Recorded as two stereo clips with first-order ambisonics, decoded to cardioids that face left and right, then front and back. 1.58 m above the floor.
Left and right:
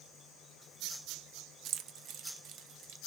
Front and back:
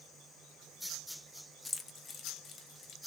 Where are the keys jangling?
75° right, 0.7 m; by 3.0 s 65° right, 1.4 m.